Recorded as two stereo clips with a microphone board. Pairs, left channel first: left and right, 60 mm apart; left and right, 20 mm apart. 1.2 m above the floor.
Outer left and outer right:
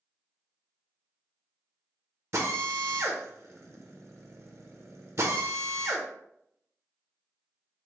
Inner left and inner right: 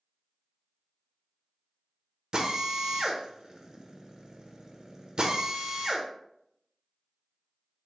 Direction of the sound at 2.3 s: 55° right (ahead or behind).